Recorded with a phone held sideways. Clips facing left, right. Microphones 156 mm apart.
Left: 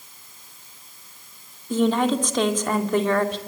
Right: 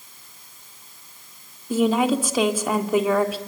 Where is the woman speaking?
5° right (ahead or behind), 2.5 m.